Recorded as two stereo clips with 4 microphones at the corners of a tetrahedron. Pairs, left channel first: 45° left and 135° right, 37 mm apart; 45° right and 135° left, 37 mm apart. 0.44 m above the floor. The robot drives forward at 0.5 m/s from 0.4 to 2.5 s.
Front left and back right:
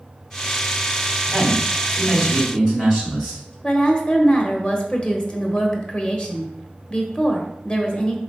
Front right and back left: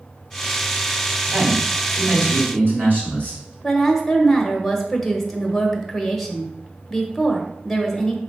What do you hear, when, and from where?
1.3 s a man speaking: 120° left, 2.5 m; by 3.5 s 130° left, 3 m
3.6 s a woman speaking: 30° left, 0.8 m